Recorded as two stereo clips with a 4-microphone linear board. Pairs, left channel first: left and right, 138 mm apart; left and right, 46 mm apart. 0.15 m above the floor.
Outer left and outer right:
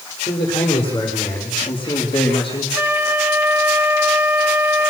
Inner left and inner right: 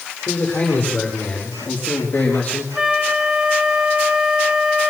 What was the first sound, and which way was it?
A man speaking, 40° left (ahead or behind).